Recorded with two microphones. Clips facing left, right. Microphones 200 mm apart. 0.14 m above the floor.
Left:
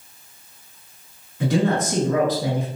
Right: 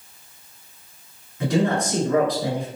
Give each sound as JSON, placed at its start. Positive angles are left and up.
{"t": 1.4, "sound": "a man speaking", "side_deg": 0, "distance_m": 1.6}